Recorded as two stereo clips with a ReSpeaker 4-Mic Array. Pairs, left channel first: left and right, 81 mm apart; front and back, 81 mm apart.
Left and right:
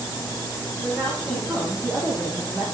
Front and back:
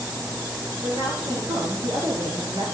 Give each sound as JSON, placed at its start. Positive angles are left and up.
{"t": 0.8, "sound": "a woman speaking", "azimuth_deg": -170, "distance_m": 8.0}